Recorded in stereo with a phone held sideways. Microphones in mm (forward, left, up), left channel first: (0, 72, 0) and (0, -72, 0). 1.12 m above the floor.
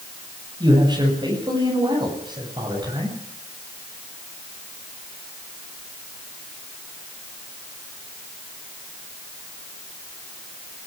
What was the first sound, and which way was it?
A man speaking, 30° right (ahead or behind).